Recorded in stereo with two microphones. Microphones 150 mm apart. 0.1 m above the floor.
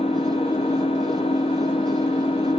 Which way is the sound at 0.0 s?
40° left (ahead or behind).